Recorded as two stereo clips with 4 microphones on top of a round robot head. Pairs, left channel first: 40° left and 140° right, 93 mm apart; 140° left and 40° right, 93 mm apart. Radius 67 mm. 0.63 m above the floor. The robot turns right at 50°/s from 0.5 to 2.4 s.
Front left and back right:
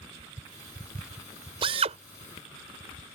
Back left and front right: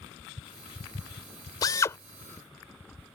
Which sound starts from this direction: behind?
A drill, at 1.6 s.